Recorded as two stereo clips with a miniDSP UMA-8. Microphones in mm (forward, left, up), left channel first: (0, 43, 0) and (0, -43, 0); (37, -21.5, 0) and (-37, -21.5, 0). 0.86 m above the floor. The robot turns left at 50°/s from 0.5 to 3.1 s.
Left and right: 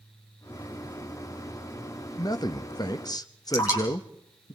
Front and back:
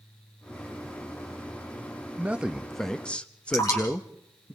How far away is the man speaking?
About 1.1 m.